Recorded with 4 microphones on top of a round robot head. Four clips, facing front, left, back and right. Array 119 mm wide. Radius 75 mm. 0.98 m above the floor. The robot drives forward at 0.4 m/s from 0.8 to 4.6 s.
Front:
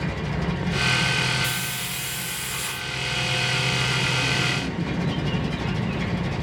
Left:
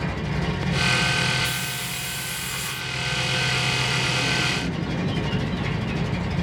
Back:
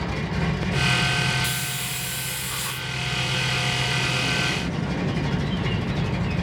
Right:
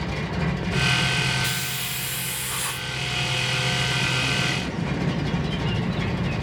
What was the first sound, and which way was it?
A hiss, 100° right.